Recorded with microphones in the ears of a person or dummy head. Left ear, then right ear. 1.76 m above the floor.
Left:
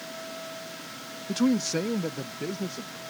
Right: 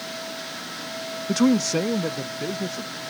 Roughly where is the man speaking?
Right.